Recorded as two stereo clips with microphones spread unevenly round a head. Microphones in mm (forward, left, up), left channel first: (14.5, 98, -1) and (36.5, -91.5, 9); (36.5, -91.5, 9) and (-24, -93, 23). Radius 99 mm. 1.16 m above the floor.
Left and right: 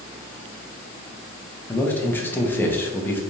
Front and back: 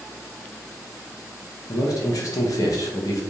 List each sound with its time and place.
1.7 s a man speaking: 20° left, 0.8 m